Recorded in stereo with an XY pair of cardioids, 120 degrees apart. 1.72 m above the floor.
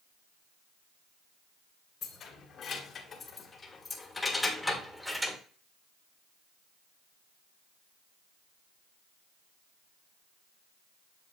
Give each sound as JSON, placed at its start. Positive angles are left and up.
{"t": 2.0, "sound": "keys jangling", "azimuth_deg": 60, "distance_m": 2.0}